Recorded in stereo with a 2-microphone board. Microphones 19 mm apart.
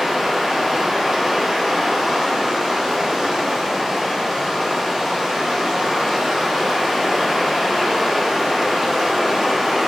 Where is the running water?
15° right (ahead or behind), 1.0 m.